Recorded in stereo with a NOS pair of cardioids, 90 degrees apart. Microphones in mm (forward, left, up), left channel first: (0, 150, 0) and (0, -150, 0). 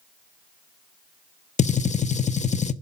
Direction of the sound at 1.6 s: 25° left.